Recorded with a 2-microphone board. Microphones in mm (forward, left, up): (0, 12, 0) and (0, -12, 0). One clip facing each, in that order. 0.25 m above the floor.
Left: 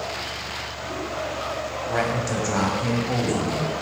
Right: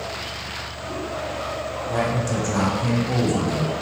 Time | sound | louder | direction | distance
1.9 | a man speaking | right 1 dB | 30° left (ahead or behind) | 1.4 m